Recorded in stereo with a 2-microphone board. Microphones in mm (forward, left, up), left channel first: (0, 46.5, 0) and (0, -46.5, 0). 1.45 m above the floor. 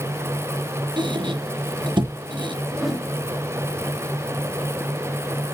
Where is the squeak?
60° right (ahead or behind), 0.8 m.